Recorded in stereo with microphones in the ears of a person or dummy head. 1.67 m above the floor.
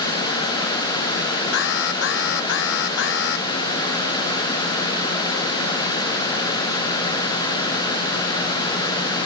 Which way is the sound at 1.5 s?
75° left (ahead or behind).